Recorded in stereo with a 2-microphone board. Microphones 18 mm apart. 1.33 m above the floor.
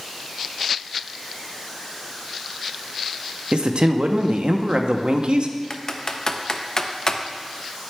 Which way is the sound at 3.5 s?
75° right (ahead or behind).